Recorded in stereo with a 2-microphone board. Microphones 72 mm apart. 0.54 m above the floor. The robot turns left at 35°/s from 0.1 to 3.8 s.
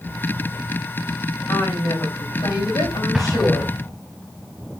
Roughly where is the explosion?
Centre.